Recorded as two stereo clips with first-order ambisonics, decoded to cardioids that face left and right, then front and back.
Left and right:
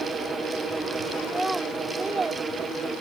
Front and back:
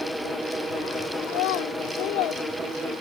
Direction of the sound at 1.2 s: Straight ahead.